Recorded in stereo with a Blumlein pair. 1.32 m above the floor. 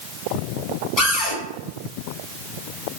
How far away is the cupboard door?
About 1.4 m.